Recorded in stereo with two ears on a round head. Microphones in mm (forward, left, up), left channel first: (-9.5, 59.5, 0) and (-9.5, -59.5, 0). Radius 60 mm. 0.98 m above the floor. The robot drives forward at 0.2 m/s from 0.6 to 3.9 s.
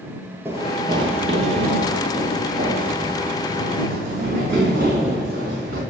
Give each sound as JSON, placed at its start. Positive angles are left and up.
{"t": 0.5, "sound": "running footsteps", "side_deg": -15, "distance_m": 1.1}